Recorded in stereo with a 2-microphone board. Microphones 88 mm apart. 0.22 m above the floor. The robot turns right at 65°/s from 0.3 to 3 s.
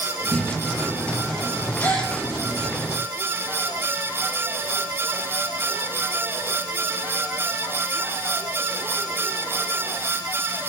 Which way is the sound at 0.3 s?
145° right.